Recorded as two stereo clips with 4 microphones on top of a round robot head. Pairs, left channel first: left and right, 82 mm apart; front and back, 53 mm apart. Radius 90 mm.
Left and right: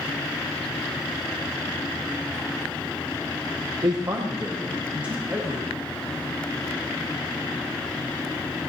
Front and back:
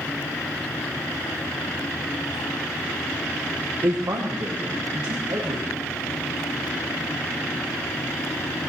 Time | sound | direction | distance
3.8 | a man speaking | 135° right | 0.7 m